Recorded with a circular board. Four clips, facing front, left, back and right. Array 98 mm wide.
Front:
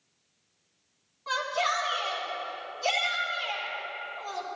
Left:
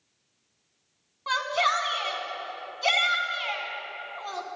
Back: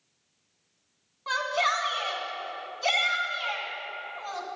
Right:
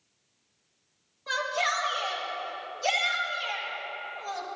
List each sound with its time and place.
1.3 s a shout: 115° left, 1.7 m